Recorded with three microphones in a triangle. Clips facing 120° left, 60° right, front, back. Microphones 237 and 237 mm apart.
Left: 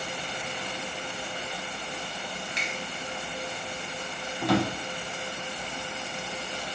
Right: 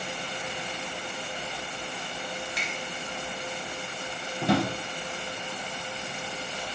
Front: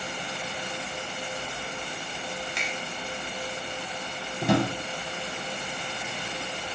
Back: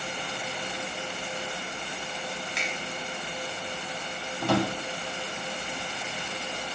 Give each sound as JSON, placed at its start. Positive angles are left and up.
{"t": 2.6, "sound": "a finger snap", "azimuth_deg": 95, "distance_m": 0.8}
{"t": 4.4, "sound": "a drawer", "azimuth_deg": -45, "distance_m": 0.7}